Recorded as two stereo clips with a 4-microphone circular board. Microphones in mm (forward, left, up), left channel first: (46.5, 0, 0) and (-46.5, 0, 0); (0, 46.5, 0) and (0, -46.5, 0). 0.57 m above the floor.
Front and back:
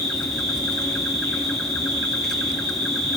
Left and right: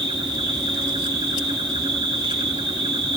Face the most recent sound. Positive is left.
turn(degrees=-85)